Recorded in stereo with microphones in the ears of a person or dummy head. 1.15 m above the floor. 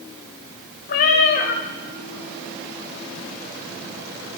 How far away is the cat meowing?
About 0.6 m.